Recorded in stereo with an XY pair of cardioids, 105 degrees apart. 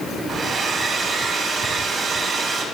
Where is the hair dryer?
55° right, 2.5 m.